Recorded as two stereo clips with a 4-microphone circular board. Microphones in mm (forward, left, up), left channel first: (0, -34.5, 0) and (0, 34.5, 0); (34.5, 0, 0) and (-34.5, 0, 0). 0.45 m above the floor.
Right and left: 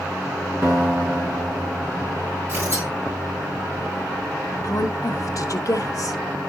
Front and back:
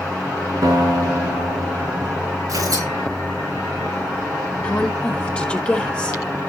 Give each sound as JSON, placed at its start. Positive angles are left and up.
{"t": 0.6, "sound": "a guitar", "azimuth_deg": 155, "distance_m": 4.0}
{"t": 2.5, "sound": "tearing paper", "azimuth_deg": 150, "distance_m": 7.0}
{"t": 4.6, "sound": "a woman speaking", "azimuth_deg": -70, "distance_m": 1.2}